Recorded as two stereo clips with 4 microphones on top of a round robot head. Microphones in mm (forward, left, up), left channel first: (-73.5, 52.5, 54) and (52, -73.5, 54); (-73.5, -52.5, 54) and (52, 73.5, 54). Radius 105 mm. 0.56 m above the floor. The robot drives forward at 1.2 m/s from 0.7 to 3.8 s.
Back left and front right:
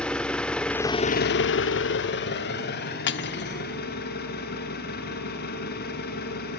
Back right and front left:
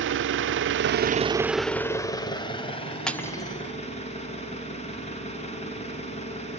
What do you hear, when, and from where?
0.0 s an engine running: 50° left, 0.8 m; by 6.6 s 170° left, 3.5 m
3.1 s cutlery clinking: 140° left, 0.7 m; by 3.7 s 160° left, 1.3 m